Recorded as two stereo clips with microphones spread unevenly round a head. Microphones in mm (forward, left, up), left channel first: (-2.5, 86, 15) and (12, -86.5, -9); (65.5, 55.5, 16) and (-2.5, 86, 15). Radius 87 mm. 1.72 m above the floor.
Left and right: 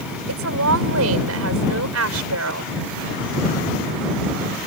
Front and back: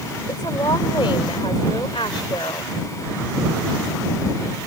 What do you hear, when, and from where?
0.3 s a woman speaking: 85° right